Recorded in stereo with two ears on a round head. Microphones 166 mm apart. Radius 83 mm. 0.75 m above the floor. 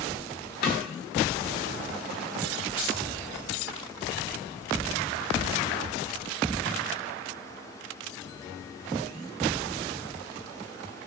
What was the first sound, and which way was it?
A snare drum, 50° left (ahead or behind).